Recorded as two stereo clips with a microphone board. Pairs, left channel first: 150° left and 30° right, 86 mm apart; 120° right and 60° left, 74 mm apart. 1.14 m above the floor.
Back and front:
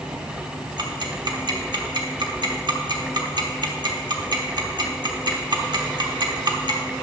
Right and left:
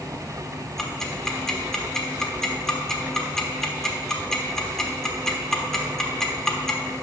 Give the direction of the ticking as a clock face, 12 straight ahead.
1 o'clock.